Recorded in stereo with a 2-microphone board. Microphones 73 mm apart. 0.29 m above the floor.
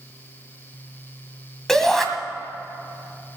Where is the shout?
5° left (ahead or behind), 1.8 m.